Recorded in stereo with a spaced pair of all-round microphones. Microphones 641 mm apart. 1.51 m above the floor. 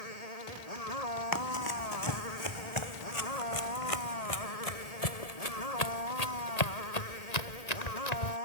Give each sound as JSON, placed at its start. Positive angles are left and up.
{"t": 0.0, "sound": "a motorcycle", "side_deg": 65}
{"t": 1.3, "sound": "running footsteps", "side_deg": 30}